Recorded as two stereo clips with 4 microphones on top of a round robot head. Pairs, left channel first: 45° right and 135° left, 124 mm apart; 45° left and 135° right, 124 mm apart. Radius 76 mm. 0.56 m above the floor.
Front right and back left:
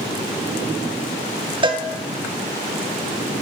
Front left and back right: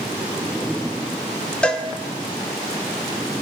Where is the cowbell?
120° left, 0.6 m.